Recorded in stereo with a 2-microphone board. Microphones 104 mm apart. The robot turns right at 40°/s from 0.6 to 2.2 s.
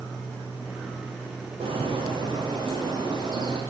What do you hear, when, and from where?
1.6 s a bird: 70° right (ahead or behind), 10 m; by 3.6 s 45° right (ahead or behind), 10 m